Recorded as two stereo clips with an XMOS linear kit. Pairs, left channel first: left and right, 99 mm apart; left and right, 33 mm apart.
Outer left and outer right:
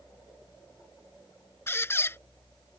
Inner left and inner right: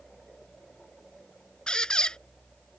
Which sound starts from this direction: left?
A squeak, at 1.7 s.